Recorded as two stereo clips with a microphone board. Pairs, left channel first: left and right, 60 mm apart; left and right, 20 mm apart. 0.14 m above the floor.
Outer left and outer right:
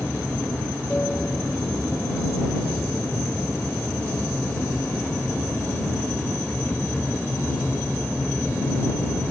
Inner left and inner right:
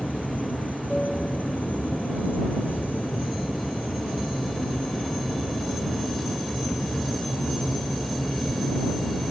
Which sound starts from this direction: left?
An aircraft, at 0.0 s.